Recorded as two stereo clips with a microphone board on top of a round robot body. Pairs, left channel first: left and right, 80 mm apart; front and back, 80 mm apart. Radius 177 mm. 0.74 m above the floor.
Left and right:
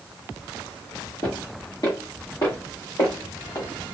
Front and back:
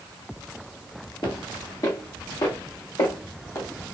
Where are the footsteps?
40° left, 0.8 m; by 3.7 s 45° left, 1.9 m.